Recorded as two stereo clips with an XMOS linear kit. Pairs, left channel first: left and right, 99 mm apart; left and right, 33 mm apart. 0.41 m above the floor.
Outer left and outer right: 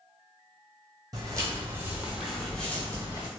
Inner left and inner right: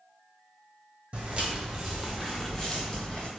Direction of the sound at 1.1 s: 40° right (ahead or behind).